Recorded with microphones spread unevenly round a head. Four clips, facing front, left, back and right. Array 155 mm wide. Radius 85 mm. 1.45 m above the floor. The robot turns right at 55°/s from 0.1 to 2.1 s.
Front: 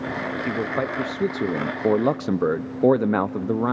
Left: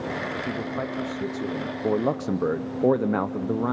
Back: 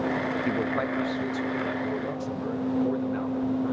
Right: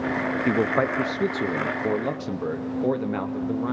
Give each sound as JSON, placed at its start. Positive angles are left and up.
{"t": 0.5, "sound": "a man speaking", "azimuth_deg": -75, "distance_m": 0.7}